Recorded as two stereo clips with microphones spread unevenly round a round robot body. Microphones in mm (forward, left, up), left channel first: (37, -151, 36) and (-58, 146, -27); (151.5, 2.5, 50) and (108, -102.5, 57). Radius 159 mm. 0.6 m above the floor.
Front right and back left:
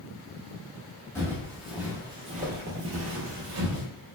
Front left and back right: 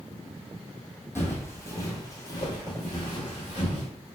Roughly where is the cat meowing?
No cat meowing in this recording.